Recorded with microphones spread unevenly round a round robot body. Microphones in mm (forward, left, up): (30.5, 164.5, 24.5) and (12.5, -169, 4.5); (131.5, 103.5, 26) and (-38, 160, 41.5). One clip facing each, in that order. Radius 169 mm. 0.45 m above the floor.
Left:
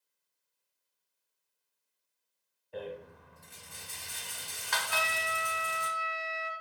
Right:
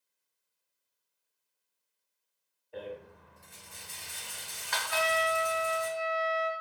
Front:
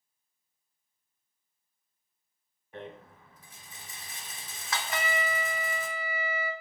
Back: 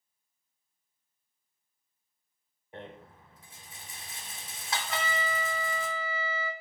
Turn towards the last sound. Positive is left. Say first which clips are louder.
# right 10 dB, front 2 dB
turn(degrees=50)